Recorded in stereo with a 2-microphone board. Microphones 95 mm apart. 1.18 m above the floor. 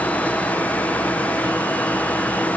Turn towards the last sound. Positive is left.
No sound to turn to.